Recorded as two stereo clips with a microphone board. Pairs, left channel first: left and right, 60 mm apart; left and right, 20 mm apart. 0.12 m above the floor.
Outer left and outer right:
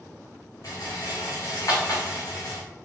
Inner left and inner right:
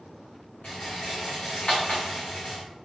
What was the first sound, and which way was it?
A rattle, 80° left.